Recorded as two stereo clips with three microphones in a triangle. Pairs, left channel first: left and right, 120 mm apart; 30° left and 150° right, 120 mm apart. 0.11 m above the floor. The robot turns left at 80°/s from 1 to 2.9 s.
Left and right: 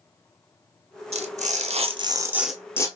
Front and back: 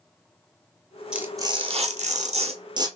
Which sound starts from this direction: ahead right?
Tearing paper, at 1.1 s.